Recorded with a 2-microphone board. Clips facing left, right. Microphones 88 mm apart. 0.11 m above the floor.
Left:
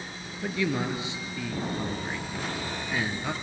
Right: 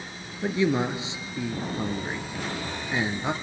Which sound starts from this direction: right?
A man speaking, at 0.4 s.